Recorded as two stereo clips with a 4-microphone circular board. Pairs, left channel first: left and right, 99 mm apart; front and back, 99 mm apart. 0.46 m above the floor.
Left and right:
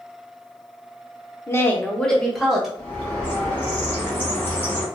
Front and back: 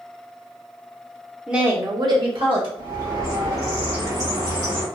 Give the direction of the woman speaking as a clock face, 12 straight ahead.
9 o'clock.